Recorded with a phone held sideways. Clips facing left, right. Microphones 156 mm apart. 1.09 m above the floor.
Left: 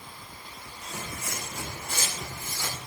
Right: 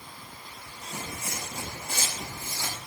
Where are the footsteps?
35° right (ahead or behind), 4 m; by 2.8 s 30° right (ahead or behind), 6 m.